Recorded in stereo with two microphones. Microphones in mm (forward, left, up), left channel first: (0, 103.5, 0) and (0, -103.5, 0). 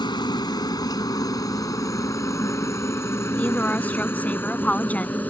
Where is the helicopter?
20° left (ahead or behind); by 5.3 s 10° left (ahead or behind).